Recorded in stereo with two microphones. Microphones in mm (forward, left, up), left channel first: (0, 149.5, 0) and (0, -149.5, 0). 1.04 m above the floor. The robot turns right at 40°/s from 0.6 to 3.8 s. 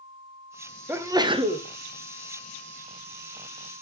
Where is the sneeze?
165° right, 0.7 m; by 1.7 s 135° right, 0.7 m.